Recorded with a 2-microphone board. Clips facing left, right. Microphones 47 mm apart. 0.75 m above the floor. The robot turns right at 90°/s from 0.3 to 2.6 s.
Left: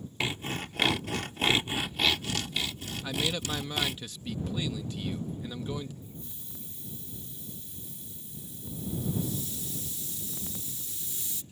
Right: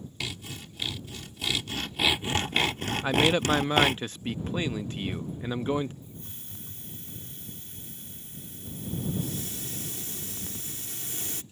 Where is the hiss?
60° right (ahead or behind).